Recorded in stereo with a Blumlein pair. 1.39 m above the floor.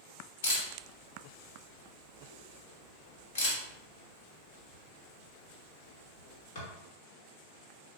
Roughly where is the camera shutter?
Ahead left.